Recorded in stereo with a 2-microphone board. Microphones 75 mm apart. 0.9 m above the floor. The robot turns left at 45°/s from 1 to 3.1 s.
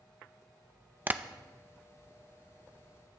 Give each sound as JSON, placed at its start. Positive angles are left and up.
{"t": 1.1, "sound": "tapping", "side_deg": -25, "distance_m": 0.6}